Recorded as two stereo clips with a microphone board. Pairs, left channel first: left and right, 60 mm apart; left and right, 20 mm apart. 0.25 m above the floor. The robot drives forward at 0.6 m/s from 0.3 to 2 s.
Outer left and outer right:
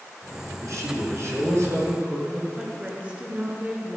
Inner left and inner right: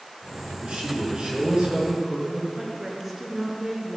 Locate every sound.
0.6 s a man speaking: 65° right (ahead or behind), 4 m; by 2.5 s 55° right (ahead or behind), 4 m
2.6 s a woman speaking: 25° right (ahead or behind), 3 m